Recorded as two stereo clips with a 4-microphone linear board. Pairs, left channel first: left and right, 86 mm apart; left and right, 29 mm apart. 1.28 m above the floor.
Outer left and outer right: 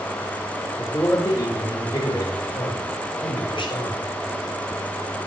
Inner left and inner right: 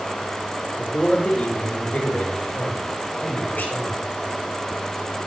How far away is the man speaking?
About 5 m.